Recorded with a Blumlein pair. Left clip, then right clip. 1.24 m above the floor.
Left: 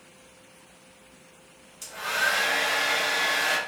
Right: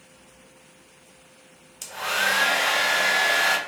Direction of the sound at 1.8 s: 70° right.